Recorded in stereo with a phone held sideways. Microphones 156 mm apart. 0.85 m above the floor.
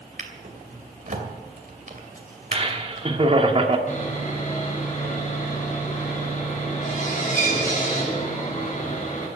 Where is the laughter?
40° right (ahead or behind), 1.9 m.